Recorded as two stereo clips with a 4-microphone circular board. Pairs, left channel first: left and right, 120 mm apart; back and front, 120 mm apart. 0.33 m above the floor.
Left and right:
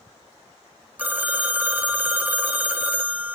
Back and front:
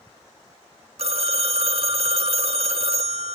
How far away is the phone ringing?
About 1.1 m.